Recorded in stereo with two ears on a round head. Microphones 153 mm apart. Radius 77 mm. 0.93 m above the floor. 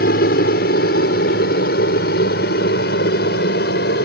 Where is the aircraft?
65° left (ahead or behind); by 4.0 s 70° left (ahead or behind).